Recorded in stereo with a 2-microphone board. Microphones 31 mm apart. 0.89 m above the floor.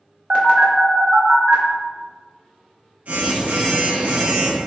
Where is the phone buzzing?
55° right (ahead or behind), 0.7 m.